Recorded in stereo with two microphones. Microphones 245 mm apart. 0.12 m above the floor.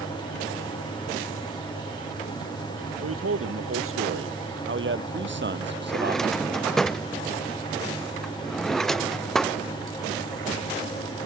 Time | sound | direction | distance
3.0 | a man speaking | 65° right (ahead or behind) | ?
5.9 | a drawer | centre (ahead or behind) | ?